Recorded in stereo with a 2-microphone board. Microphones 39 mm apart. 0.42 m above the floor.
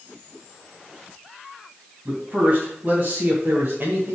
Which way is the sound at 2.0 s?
30° right (ahead or behind).